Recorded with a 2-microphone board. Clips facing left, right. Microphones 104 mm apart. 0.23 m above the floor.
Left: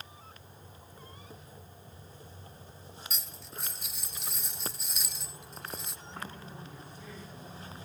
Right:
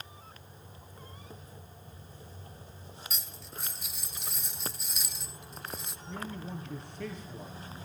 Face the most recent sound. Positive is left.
turn(degrees=-75)  # may be behind; listen again after turning